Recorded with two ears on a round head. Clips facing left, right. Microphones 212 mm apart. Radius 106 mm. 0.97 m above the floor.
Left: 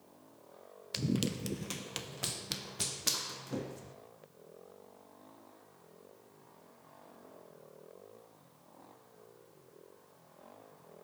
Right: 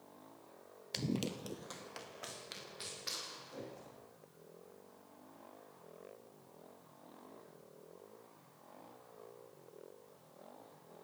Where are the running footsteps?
5° left (ahead or behind), 1.0 m; by 3.9 s 75° left (ahead or behind), 3.5 m.